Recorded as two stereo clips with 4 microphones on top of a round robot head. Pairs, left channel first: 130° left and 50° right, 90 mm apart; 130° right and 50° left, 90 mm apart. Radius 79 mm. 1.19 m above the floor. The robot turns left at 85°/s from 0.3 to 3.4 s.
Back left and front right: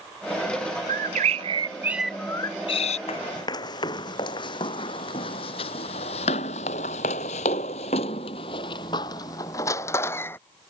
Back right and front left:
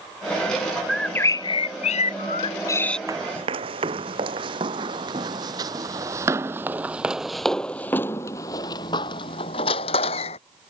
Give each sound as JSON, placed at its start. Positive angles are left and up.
{"t": 0.9, "sound": "a bird", "azimuth_deg": -40}
{"t": 3.1, "sound": "running footsteps", "azimuth_deg": 110}